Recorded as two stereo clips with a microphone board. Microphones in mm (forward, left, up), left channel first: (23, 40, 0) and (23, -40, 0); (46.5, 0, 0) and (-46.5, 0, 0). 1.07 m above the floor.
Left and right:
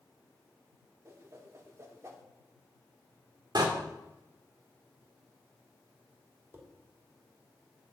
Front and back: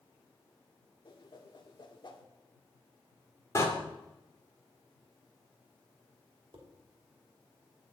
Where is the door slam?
55° right, 2.5 m.